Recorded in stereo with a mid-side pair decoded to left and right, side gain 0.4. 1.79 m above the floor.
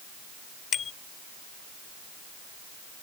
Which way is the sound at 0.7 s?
60° left.